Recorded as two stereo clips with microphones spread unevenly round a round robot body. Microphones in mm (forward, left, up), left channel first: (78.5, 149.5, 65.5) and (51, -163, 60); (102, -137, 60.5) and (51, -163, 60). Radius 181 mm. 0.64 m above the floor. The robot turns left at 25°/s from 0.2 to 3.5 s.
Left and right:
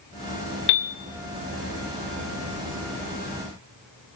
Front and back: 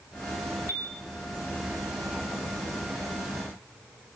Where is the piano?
100° left, 0.8 m; by 1.0 s 95° left, 0.8 m.